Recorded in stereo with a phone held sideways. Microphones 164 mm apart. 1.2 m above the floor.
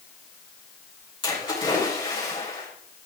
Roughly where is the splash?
Left.